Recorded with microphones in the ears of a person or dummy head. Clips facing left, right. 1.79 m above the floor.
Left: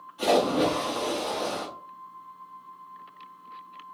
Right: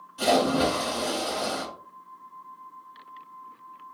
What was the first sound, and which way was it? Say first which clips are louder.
A splash: even; 55° right (ahead or behind).